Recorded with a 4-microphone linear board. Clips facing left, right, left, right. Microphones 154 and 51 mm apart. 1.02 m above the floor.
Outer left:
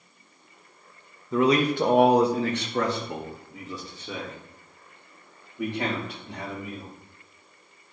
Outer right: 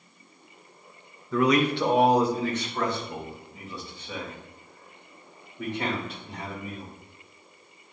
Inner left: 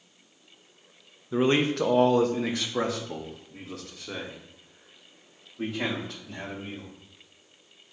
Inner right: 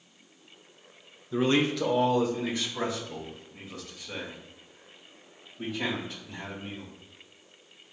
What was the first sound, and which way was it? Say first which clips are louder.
A man speaking: outer left 1 dB, inner left 2 dB; 20° left (ahead or behind).